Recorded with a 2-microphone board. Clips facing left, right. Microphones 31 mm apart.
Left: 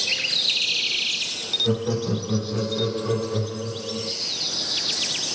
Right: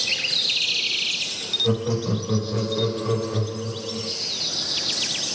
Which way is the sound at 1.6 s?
15° right (ahead or behind).